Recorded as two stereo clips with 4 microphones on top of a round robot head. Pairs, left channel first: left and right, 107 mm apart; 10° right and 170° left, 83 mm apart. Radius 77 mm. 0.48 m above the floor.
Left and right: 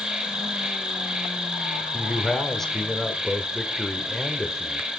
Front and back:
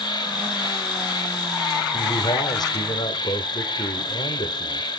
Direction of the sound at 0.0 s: 5° right.